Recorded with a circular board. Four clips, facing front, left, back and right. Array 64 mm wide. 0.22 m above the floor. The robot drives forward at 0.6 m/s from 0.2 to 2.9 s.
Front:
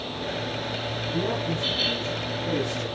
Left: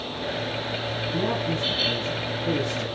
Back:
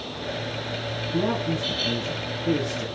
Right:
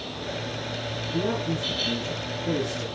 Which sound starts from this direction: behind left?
A man speaking, at 1.1 s.